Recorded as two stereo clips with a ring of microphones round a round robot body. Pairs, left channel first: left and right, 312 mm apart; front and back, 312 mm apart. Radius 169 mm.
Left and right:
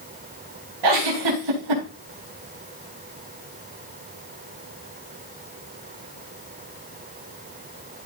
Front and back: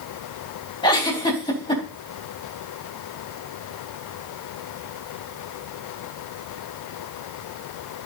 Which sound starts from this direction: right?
A giggle, at 0.8 s.